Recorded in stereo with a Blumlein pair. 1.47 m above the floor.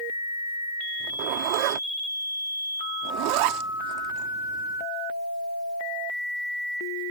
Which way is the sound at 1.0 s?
45° right.